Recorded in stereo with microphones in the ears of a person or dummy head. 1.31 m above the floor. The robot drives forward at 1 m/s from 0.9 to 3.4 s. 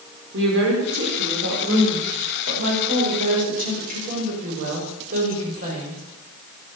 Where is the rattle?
I don't hear a rattle.